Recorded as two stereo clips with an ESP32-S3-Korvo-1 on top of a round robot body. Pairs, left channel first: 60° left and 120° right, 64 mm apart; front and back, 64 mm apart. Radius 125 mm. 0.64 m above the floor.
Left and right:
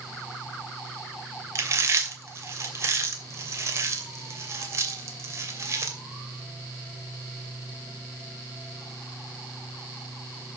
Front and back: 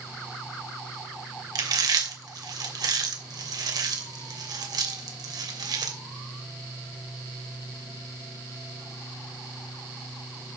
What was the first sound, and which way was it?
Chewing, 165° right.